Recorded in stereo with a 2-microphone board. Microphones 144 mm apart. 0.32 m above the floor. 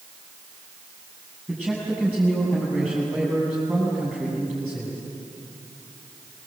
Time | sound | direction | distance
1.5 | a man speaking | 10° right (ahead or behind) | 7.5 m